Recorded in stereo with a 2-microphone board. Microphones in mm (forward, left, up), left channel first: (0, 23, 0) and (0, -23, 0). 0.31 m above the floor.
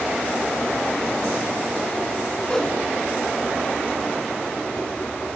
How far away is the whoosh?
About 2.5 m.